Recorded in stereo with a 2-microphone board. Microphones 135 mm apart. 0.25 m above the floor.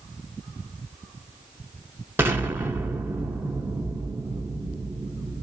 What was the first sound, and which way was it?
An explosion, 15° right (ahead or behind).